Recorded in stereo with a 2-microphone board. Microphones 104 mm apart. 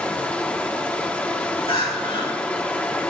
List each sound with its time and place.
0.0 s running water: 15° left (ahead or behind), 0.9 m
1.7 s crying: 70° left (ahead or behind), 4.5 m